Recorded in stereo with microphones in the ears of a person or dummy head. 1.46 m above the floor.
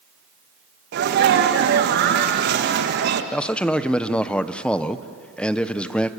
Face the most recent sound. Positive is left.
turn(degrees=10)  # may be behind; listen again after turning